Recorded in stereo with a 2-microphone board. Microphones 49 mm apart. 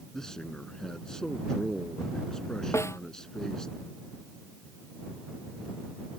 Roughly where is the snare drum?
Left.